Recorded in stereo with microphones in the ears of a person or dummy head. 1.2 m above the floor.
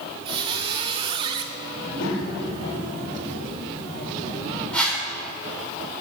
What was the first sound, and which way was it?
A squeak, 30° right (ahead or behind).